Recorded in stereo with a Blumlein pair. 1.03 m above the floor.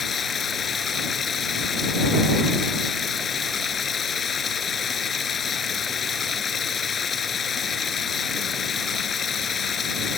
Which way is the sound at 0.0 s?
20° left.